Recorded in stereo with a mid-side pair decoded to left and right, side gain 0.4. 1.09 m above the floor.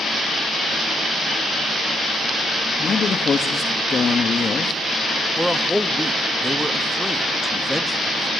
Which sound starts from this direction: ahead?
A man speaking, at 5.4 s.